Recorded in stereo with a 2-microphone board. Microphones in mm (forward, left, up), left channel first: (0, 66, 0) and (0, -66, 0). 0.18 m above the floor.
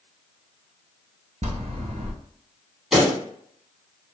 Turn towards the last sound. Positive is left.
turn(degrees=-5)  # may be behind; listen again after turning